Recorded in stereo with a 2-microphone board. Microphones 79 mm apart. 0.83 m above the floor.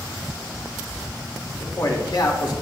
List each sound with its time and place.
1.6 s a man speaking: 65° left (ahead or behind), 2.5 m